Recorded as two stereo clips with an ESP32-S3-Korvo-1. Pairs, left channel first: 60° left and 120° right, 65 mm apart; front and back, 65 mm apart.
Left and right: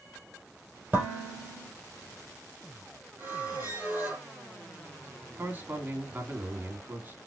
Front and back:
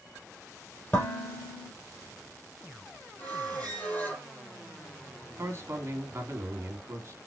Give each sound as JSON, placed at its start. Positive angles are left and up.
{"t": 0.9, "sound": "dishes clattering", "azimuth_deg": -60, "distance_m": 4.0}
{"t": 3.2, "sound": "a squeak", "azimuth_deg": -60, "distance_m": 4.5}
{"t": 5.4, "sound": "a man speaking", "azimuth_deg": -160, "distance_m": 2.0}